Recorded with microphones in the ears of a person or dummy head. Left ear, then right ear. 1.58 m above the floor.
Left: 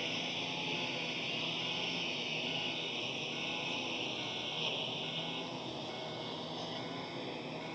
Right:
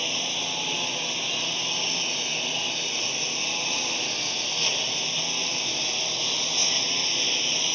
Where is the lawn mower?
45° right (ahead or behind); by 7.8 s 75° right (ahead or behind).